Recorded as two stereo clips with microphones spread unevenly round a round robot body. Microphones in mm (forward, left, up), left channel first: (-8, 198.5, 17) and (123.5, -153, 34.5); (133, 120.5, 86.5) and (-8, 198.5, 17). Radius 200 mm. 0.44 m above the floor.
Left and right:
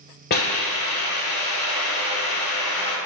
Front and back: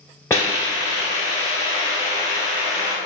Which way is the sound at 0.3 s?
45° left.